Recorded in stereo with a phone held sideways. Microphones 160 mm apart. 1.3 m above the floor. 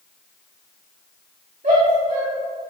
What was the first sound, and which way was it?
A shout, 55° right (ahead or behind).